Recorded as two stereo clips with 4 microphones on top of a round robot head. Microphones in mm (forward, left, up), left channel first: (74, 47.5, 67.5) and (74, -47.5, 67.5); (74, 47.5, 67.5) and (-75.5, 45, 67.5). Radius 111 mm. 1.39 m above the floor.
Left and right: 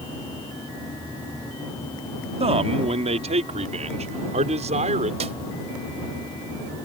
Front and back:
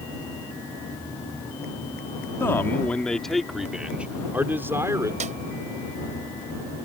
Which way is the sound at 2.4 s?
75° right.